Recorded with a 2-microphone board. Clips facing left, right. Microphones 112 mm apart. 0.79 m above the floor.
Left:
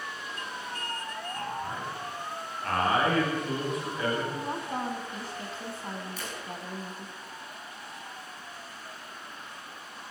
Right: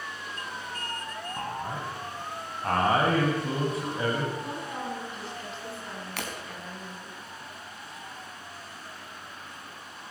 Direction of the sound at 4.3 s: 40° left (ahead or behind).